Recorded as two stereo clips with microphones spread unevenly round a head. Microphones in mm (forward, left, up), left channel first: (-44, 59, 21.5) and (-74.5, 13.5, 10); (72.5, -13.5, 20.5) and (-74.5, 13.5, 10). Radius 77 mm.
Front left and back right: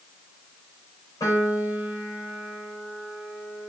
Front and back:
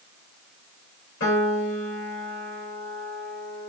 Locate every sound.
1.2 s a piano: 5° right, 4 m